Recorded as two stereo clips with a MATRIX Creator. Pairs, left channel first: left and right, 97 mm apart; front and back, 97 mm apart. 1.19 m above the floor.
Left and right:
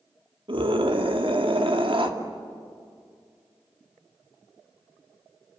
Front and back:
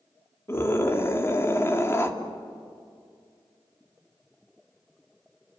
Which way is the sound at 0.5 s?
65° right.